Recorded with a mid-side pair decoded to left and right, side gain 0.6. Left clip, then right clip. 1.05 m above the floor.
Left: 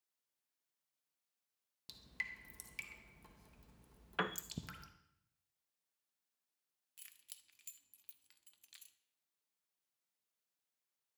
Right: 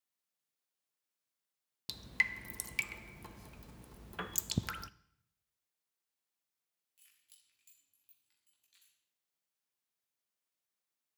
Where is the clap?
I don't hear a clap.